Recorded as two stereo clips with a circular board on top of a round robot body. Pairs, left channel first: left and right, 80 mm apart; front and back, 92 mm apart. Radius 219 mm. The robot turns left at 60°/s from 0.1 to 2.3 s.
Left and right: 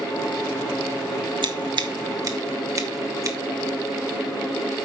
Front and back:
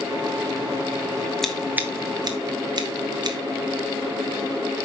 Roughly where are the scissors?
Right.